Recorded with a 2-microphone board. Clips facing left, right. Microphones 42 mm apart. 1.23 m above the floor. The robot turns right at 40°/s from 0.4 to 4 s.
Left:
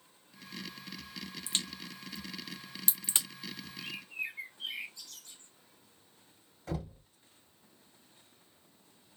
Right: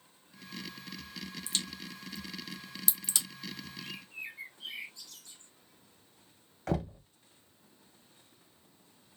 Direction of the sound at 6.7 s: 70° right (ahead or behind).